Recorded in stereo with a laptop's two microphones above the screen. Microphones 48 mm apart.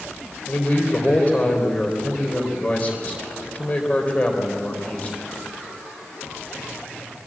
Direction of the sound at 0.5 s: 30° left (ahead or behind).